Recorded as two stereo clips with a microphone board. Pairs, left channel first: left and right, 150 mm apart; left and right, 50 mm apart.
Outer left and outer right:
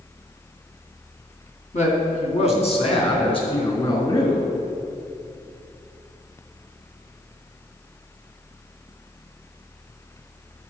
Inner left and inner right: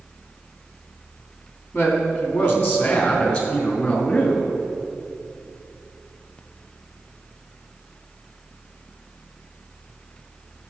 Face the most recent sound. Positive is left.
turn(degrees=30)  # may be behind; listen again after turning